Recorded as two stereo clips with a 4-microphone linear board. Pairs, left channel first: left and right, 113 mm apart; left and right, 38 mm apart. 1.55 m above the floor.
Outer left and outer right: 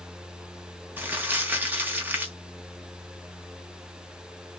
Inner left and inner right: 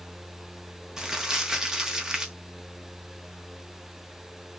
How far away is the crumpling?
About 0.9 m.